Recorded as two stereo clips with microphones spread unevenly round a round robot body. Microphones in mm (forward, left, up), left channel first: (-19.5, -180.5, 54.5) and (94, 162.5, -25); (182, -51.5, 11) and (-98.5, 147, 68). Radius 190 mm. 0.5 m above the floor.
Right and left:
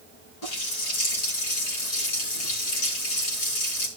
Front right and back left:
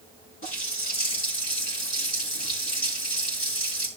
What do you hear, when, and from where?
0.4 s a running tap: 105° right, 5 m